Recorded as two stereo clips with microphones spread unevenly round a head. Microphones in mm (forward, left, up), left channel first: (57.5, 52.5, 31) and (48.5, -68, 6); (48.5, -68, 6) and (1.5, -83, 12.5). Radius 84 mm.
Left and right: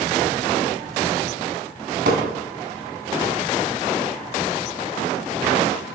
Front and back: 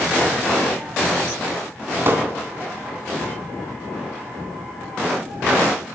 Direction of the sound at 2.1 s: 125° right.